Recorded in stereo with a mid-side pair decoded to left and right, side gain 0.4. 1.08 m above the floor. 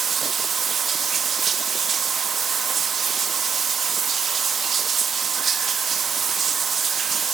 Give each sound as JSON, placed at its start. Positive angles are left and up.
{"t": 0.0, "sound": "running water", "azimuth_deg": -50, "distance_m": 1.3}